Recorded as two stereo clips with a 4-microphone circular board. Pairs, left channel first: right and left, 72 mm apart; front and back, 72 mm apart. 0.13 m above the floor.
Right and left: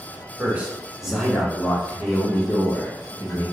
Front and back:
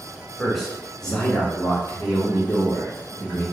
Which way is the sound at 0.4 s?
85° left.